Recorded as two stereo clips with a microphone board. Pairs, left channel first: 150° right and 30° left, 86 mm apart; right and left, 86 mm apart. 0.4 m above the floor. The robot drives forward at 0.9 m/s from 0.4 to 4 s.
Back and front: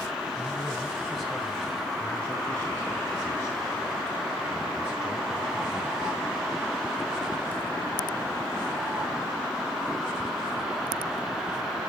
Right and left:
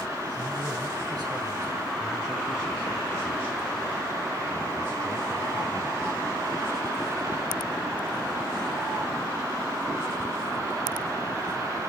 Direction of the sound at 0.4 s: 110° left.